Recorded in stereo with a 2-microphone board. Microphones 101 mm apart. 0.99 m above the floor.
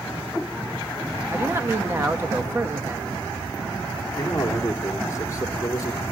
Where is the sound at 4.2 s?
30° left (ahead or behind), 2 m.